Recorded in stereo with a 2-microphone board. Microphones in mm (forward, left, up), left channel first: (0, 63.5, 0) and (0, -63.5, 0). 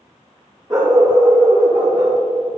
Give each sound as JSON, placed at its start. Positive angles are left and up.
{"t": 0.7, "sound": "a dog barking", "side_deg": -30, "distance_m": 3.0}